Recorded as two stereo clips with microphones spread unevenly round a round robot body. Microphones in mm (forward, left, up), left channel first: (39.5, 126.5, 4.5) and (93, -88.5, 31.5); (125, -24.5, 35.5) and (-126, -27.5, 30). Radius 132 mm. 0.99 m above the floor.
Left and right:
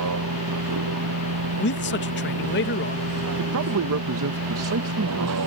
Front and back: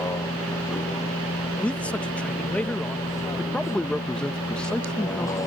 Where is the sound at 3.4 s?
85° right.